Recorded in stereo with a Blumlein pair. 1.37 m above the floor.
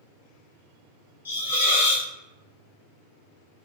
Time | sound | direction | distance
1.2 | a hiss | 65° left | 1.1 m